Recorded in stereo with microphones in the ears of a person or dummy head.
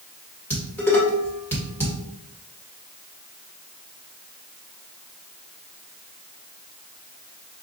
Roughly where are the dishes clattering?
Centre.